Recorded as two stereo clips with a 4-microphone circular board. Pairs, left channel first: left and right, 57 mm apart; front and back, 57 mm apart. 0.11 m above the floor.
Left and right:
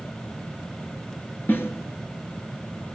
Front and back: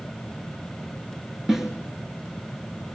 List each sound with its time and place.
1.5 s a snare drum: 100° left, 1.9 m